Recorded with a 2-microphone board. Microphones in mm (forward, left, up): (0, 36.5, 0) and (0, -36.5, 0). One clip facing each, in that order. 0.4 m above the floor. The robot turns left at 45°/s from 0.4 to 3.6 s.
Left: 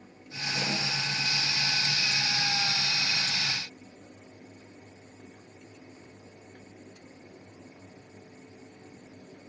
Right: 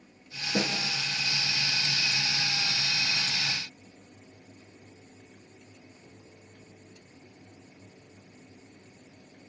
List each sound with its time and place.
0.5 s a snare drum: 60° right (ahead or behind), 8 m; by 0.8 s 70° right (ahead or behind), 8 m